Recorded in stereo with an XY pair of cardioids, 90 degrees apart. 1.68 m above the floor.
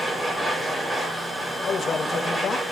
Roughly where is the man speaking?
Ahead left.